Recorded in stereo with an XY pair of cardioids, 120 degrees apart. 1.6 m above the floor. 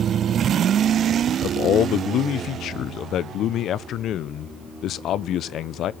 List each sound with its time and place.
1.4 s a man speaking: 60° left, 0.7 m